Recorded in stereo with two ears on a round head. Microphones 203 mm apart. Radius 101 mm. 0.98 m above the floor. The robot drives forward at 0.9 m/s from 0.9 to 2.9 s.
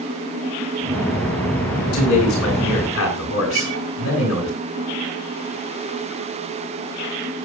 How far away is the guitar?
About 4.5 m.